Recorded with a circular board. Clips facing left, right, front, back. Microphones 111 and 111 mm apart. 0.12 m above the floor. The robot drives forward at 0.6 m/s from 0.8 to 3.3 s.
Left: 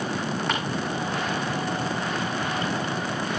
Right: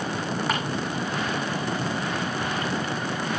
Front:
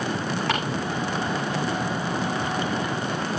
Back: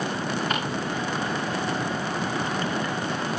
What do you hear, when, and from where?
0.5 s ticking: 5° right, 8 m